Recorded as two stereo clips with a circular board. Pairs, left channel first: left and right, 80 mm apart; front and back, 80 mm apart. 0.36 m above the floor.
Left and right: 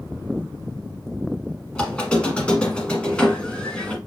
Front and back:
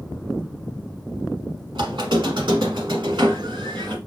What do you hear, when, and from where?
1.8 s a squeak: 165° left, 1.1 m